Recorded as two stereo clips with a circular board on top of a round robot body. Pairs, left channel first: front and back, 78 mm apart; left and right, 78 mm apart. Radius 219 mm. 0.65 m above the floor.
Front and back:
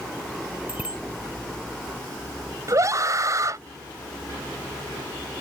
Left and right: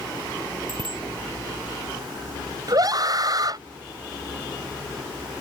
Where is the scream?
130° right.